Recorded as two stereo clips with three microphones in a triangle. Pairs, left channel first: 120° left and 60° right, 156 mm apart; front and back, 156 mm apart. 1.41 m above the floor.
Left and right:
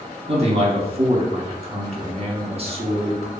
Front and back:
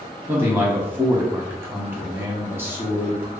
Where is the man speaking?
105° right, 0.9 m.